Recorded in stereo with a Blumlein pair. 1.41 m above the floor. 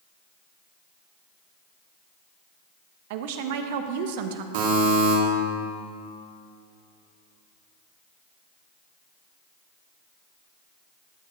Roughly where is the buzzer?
Ahead right.